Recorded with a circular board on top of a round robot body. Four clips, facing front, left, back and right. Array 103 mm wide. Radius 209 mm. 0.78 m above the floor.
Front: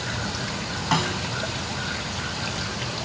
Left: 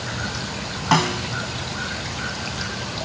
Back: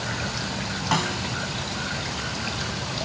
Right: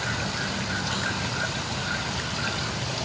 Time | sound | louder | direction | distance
0.9 | a snare drum | left 10 dB, front 1 dB | 85° left | ?